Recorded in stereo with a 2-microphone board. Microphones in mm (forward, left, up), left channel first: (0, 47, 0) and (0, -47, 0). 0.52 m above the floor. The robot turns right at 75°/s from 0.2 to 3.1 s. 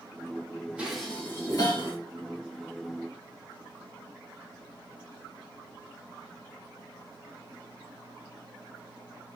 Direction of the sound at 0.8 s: 15° right (ahead or behind).